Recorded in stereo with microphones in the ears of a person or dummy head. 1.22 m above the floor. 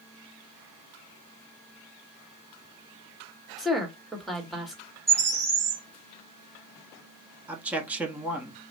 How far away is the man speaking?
About 0.9 m.